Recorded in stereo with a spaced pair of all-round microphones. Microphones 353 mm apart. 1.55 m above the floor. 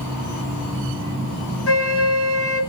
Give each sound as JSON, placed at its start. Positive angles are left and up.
{"t": 1.7, "sound": "a flute", "side_deg": 40, "distance_m": 5.0}